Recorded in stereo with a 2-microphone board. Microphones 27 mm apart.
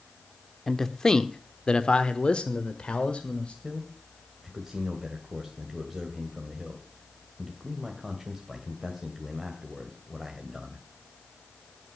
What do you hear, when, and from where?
0.7 s a man speaking: 15° left (ahead or behind), 1.1 m; by 3.5 s 45° left (ahead or behind), 2.0 m
3.6 s a man speaking: 10° right (ahead or behind), 2.5 m